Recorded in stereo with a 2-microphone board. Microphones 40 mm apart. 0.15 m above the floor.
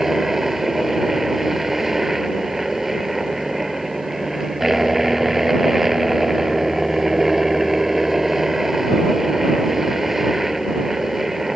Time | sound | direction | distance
0.0 | a helicopter | 10° right (ahead or behind) | ?